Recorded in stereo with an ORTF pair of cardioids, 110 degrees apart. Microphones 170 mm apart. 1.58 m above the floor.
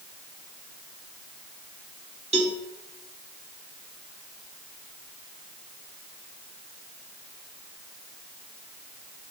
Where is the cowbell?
40° right, 2.5 m.